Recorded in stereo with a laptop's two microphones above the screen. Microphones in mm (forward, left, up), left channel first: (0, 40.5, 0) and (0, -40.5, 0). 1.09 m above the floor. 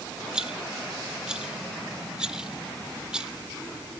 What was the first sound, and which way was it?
A rattle, 10° right (ahead or behind).